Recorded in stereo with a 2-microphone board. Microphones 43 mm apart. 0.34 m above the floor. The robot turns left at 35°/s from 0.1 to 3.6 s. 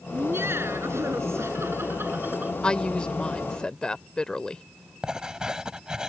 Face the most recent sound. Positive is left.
turn(degrees=-15)  # may be behind; listen again after turning